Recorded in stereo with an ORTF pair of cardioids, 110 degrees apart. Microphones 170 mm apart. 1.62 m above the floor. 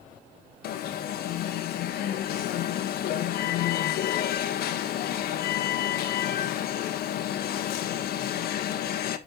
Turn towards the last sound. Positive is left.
turn(degrees=70)